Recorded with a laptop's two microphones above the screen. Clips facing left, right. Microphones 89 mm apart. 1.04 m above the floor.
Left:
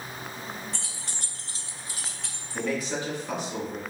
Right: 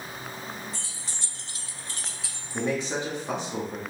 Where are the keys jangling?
75° left (ahead or behind), 0.6 m; by 2.6 s 15° right (ahead or behind), 0.8 m.